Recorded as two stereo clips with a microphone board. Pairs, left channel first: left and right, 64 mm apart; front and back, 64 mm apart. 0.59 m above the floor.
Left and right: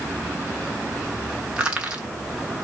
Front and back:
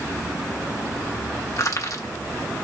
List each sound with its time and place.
1.6 s crushing: 20° right, 1.1 m